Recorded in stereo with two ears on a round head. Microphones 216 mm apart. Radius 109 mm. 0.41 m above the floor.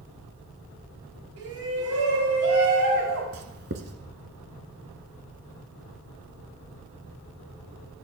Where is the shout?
65° right (ahead or behind), 3.5 m; by 3.2 s 55° right (ahead or behind), 4 m.